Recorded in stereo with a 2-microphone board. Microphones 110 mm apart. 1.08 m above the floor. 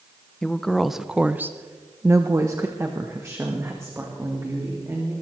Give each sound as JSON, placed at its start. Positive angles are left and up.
{"t": 0.4, "sound": "a woman speaking", "side_deg": 5, "distance_m": 0.9}